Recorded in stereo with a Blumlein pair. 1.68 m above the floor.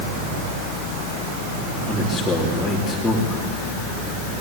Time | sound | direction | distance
1.9 | a man speaking | 5° left | 3.5 m